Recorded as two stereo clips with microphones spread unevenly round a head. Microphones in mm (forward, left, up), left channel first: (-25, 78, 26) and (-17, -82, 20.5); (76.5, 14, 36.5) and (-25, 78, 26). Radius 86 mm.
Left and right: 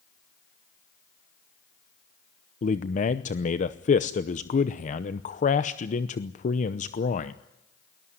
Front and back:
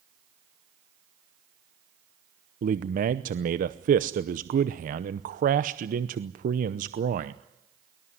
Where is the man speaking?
140° left, 0.8 m.